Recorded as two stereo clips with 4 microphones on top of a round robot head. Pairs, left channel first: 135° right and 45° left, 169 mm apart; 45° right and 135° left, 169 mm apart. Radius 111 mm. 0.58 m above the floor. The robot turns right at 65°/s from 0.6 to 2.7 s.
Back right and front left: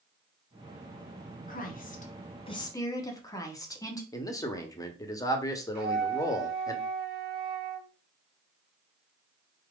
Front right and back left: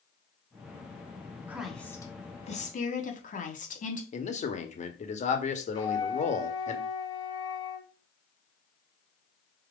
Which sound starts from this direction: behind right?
A woman speaking, at 1.5 s.